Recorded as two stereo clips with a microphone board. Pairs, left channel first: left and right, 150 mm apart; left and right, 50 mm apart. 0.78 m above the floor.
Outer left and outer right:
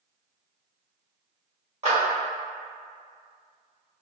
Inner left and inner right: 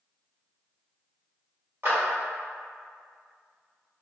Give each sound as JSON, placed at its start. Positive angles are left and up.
{"t": 1.8, "sound": "a clap", "side_deg": -50, "distance_m": 1.4}